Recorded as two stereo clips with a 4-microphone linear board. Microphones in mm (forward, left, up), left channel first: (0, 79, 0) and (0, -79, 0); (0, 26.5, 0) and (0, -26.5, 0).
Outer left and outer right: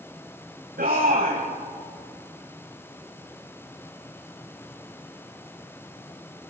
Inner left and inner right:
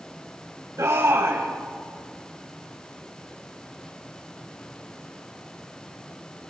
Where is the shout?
70° right (ahead or behind), 3.5 m.